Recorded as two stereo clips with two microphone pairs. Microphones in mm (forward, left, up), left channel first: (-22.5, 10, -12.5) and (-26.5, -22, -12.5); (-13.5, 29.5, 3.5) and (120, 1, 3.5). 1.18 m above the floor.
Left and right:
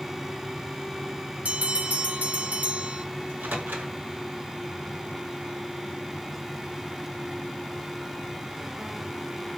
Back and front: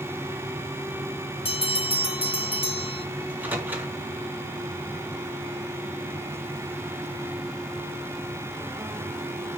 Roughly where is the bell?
Behind right.